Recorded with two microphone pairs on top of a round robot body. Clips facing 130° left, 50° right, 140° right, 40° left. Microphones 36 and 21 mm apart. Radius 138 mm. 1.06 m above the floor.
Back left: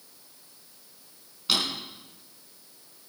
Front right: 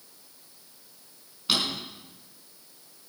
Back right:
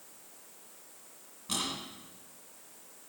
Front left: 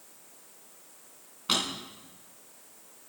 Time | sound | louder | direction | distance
1.5 | a drawer | even, front left 8 dB | 35° left | 4 m